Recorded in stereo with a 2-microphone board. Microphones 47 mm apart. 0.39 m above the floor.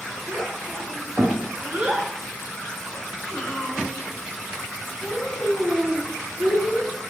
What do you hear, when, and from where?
0.3 s a child speaking: 70° right (ahead or behind), 1.2 m; by 6.9 s 65° left (ahead or behind), 2.5 m